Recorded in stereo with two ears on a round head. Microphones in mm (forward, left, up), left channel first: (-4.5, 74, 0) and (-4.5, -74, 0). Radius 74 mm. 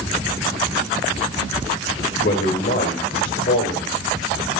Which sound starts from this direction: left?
A man speaking, at 2.2 s.